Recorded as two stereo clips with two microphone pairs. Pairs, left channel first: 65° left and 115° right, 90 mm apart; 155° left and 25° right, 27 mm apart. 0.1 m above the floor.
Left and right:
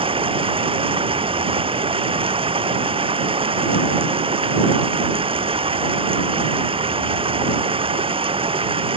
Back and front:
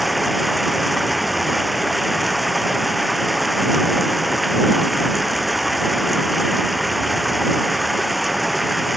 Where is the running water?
110° right.